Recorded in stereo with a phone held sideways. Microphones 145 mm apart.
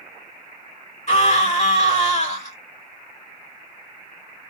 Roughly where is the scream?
Left.